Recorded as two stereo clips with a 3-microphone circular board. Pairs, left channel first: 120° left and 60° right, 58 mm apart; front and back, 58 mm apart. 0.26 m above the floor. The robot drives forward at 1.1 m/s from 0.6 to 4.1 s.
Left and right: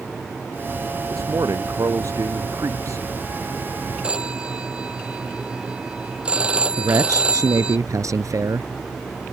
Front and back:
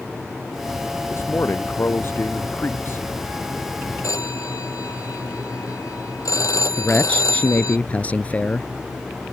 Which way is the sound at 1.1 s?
40° right.